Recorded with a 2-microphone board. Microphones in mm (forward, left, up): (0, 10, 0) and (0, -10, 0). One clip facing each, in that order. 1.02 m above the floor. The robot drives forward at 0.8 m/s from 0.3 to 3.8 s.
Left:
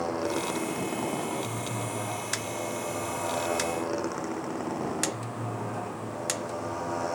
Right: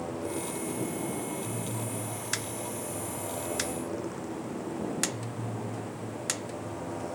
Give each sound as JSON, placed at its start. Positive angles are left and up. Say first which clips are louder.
{"t": 0.0, "sound": "a motorcycle", "louder": "left 5 dB", "side_deg": 75}